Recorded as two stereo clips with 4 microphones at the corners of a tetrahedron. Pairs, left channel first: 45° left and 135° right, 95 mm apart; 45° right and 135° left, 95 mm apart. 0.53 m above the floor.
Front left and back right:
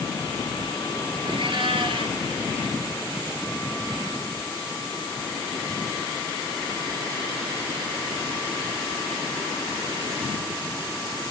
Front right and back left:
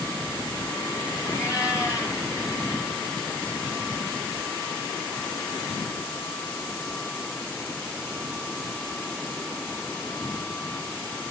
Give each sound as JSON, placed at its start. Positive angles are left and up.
{"t": 1.2, "sound": "a cat meowing", "azimuth_deg": -105, "distance_m": 4.5}